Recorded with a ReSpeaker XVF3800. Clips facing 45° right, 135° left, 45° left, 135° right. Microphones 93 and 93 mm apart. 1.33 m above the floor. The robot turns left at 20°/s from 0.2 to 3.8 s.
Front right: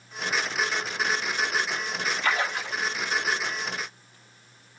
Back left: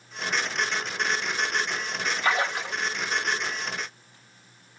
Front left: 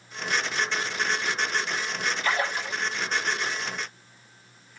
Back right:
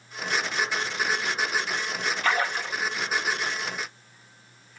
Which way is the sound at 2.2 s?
160° right.